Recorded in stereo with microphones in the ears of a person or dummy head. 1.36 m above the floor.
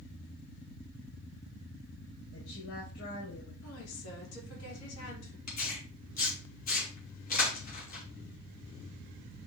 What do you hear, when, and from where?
2.3 s a woman speaking: 80° left, 4.5 m
3.6 s a woman speaking: 80° left, 4 m
5.5 s tearing paper: 50° left (ahead or behind), 2.5 m